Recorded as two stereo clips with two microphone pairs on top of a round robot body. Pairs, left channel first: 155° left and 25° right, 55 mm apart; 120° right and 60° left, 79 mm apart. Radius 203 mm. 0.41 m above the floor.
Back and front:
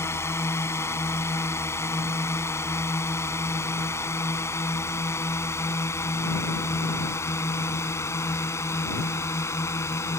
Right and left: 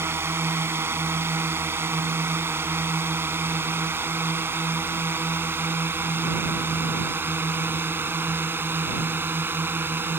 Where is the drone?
120° left.